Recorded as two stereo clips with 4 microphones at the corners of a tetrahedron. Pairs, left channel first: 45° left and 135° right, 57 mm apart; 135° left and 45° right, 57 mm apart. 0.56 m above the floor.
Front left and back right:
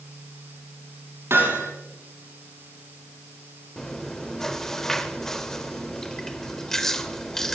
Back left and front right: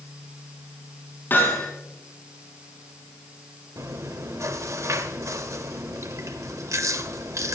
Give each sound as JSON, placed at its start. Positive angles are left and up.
{"t": 1.3, "sound": "hammering", "azimuth_deg": -175, "distance_m": 6.5}
{"t": 3.8, "sound": "chewing", "azimuth_deg": -35, "distance_m": 1.2}